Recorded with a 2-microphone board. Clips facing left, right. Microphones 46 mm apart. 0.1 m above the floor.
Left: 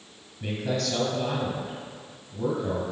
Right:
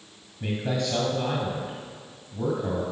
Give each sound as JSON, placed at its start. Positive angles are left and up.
{"t": 0.4, "sound": "a man speaking", "side_deg": -20, "distance_m": 2.0}